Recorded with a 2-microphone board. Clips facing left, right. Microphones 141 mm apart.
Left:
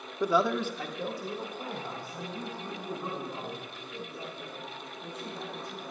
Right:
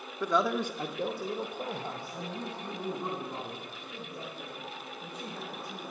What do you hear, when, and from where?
0.2 s a man speaking: 15° left (ahead or behind), 0.7 m; by 5.9 s 35° right (ahead or behind), 7.5 m